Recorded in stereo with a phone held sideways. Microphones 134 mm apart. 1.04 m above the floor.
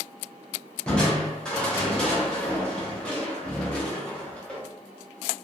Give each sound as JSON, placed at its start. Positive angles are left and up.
{"t": 0.9, "sound": "crushing", "side_deg": 5, "distance_m": 0.7}